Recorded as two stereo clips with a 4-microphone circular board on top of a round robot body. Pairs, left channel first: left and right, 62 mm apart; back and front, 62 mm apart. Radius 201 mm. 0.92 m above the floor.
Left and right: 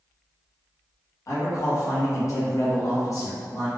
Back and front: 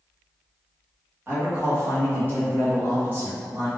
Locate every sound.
1.3 s a man speaking: 55° left, 1.1 m